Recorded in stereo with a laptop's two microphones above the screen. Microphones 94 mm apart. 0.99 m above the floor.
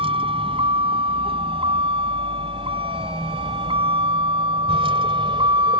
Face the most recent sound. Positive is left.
turn(degrees=-70)  # may be behind; listen again after turning